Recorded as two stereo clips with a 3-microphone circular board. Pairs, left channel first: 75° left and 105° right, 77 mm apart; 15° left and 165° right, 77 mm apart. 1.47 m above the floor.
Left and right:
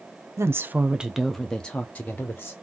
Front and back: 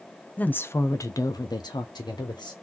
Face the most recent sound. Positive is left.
turn(degrees=15)